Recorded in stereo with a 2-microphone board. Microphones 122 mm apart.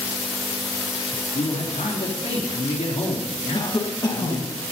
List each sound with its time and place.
1.3 s a man speaking: 70° left (ahead or behind), 3 m
3.5 s a cough: 35° left (ahead or behind), 1.9 m